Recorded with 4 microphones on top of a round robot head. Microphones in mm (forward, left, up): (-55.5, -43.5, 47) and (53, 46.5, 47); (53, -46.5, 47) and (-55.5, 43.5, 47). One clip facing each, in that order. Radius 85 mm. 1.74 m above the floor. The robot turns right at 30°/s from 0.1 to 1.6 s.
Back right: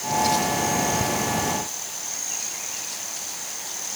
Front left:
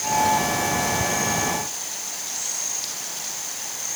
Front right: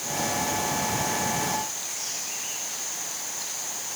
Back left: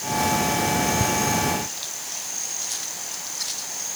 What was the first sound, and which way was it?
Only background noise.